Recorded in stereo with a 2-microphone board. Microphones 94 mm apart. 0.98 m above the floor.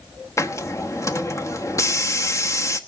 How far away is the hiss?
About 0.9 m.